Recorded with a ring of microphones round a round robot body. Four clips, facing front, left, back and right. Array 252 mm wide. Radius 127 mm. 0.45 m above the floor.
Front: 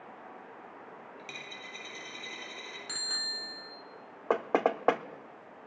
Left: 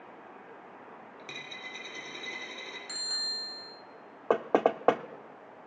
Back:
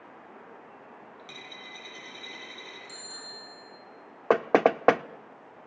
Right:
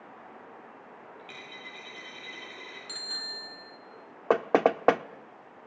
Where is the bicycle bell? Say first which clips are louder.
Right 1 dB, front 2 dB; 10° left, 4 m.